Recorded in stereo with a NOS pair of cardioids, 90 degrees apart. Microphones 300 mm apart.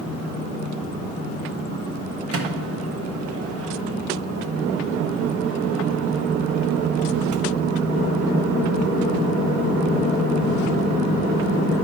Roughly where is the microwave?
Ahead right.